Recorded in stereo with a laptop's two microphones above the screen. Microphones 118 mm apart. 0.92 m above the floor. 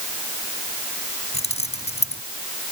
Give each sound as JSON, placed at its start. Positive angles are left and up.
{"t": 1.3, "sound": "keys jangling", "side_deg": 65}